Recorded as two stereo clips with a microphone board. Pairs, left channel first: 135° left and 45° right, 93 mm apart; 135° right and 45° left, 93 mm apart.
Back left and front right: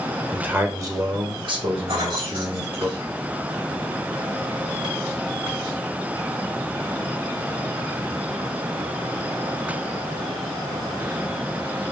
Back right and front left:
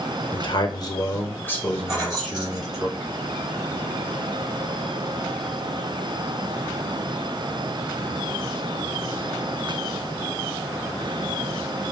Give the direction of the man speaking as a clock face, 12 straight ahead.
4 o'clock.